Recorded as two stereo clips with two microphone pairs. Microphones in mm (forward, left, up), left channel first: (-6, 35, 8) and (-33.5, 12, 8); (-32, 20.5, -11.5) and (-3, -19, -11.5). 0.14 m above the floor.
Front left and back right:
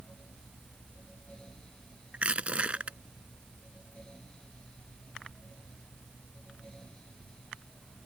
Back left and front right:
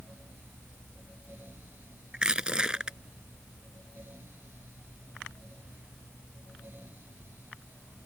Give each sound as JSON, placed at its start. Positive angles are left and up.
{"t": 2.1, "sound": "crushing", "azimuth_deg": -120}